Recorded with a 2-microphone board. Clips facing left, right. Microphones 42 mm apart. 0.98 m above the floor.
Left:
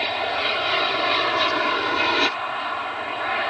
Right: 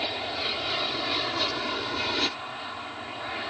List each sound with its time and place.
0.0 s an aircraft: 35° left (ahead or behind)